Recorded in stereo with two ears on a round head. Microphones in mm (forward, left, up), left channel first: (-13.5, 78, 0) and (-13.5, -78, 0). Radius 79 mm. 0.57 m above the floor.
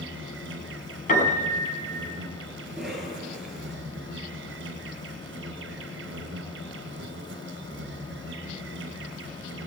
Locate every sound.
0.0 s an insect: 80° right, 3 m
1.1 s a piano: 45° left (ahead or behind), 5.5 m
2.7 s a cough: centre (ahead or behind), 9.5 m